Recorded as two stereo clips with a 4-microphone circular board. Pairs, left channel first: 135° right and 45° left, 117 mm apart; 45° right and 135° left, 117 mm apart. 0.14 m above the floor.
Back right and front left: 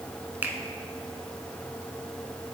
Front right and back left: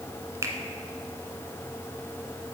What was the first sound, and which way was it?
A finger snap, 105° left.